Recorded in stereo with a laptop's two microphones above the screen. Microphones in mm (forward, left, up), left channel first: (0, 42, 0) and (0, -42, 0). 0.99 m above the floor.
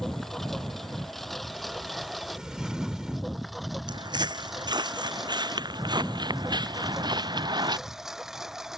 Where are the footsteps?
65° right (ahead or behind); by 7.8 s 60° right (ahead or behind).